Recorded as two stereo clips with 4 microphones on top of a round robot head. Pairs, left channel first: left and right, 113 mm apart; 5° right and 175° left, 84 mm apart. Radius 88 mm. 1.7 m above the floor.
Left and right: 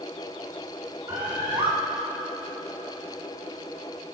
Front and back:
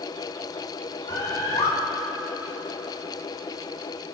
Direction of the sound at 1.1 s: 25° right.